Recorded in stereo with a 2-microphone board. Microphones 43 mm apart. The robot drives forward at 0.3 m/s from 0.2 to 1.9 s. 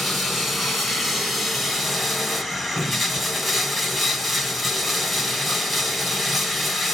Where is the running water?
Centre (ahead or behind), 2 m.